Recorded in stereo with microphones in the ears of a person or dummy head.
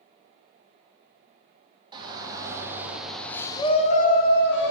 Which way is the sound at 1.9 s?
25° right (ahead or behind).